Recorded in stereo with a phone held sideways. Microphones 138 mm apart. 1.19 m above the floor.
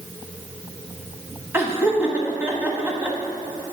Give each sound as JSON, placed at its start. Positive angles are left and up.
{"t": 1.5, "sound": "laughter", "side_deg": -15, "distance_m": 1.3}